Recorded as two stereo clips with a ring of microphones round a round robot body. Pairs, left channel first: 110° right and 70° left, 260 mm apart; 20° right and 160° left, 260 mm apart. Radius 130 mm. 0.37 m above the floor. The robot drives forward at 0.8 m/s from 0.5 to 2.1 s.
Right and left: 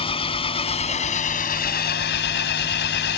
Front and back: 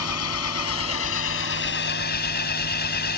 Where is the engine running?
45° right; by 3.2 s 70° right.